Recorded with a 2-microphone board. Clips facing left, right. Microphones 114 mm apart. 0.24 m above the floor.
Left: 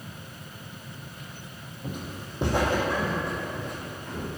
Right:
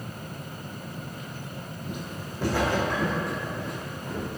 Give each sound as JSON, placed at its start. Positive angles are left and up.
{"t": 1.8, "sound": "footsteps", "side_deg": 45, "distance_m": 0.6}